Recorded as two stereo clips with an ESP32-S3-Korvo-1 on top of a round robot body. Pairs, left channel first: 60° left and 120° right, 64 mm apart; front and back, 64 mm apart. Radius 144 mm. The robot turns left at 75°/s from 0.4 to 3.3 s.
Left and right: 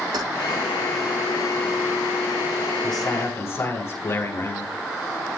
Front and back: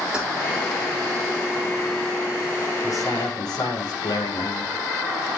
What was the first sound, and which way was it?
Keys jangling, 105° right.